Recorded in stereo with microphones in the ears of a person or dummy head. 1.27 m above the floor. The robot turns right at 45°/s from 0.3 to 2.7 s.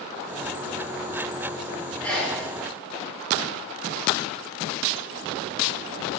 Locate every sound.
2.0 s a sneeze: 10° left (ahead or behind), 4.5 m; by 2.4 s 5° right (ahead or behind), 4.5 m